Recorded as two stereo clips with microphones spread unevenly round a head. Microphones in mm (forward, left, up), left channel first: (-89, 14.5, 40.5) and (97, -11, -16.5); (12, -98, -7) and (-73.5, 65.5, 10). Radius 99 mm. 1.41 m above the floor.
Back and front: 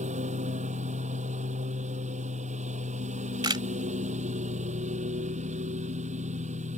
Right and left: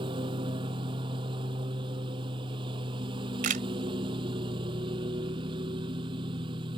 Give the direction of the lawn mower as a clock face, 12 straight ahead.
10 o'clock.